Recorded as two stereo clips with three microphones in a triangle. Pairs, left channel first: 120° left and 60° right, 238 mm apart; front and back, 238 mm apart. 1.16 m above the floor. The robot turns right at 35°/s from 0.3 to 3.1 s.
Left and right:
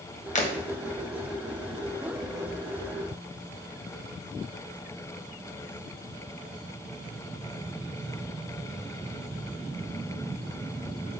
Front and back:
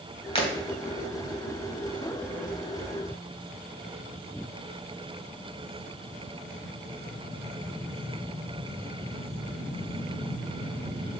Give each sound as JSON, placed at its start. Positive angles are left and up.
{"t": 0.3, "sound": "breaking glass", "azimuth_deg": 65, "distance_m": 2.0}